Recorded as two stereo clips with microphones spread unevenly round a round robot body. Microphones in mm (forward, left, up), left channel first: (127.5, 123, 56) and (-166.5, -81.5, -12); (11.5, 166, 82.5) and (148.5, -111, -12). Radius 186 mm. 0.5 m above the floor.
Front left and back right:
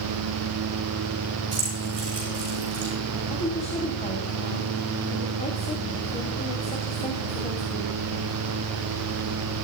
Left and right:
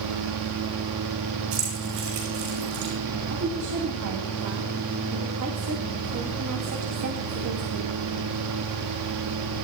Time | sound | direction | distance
1.5 | keys jangling | 70° right | 9 m
3.3 | a woman speaking | 45° right | 3 m